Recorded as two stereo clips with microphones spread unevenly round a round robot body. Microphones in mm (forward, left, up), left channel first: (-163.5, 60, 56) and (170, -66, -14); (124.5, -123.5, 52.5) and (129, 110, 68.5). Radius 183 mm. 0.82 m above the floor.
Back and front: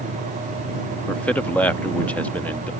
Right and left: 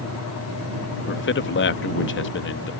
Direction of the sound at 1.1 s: 105° right.